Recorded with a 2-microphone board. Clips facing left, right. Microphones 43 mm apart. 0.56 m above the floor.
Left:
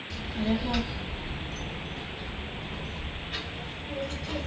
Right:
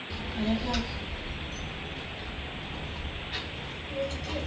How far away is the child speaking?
About 0.6 m.